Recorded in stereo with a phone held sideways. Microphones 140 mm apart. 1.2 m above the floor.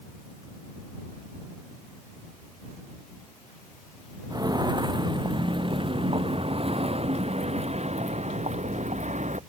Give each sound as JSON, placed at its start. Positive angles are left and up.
{"t": 4.3, "sound": "footsteps", "side_deg": -30}